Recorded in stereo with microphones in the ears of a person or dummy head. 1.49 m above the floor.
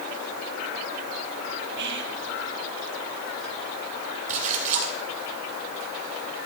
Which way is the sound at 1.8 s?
60° right (ahead or behind).